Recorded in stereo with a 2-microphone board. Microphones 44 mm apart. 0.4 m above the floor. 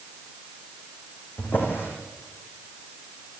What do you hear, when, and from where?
1.4 s a drawer: 55° left (ahead or behind), 5.5 m